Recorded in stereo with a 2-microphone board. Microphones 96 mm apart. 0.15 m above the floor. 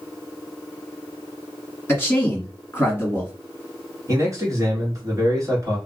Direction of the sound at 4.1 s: 35° right (ahead or behind).